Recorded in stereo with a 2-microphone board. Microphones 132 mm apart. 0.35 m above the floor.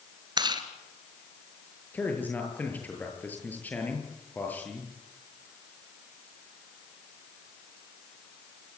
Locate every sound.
0.4 s chewing: 35° right (ahead or behind), 2.5 m
1.9 s a man speaking: 15° left (ahead or behind), 8 m